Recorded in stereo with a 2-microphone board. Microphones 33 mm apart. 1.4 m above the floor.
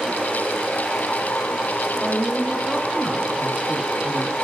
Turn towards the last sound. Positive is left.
turn(degrees=-20)  # may be behind; listen again after turning